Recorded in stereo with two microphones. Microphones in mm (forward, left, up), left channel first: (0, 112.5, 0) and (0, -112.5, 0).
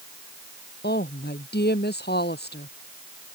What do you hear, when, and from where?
0.8 s a woman speaking: 45° left (ahead or behind)